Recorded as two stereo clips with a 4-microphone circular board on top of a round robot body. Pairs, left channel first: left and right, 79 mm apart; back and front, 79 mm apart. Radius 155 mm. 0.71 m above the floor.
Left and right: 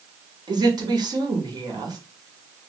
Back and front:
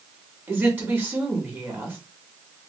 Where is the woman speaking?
65° right, 2.0 m.